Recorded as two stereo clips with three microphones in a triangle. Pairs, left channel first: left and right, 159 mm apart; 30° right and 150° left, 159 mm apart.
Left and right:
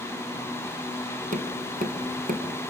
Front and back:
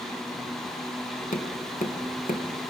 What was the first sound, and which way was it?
Tapping, 60° right.